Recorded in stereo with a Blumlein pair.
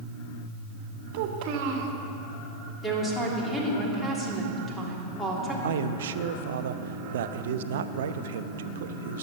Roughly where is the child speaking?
Ahead right.